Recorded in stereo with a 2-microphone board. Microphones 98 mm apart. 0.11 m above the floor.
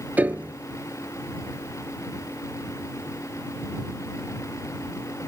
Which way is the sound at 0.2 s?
15° right (ahead or behind).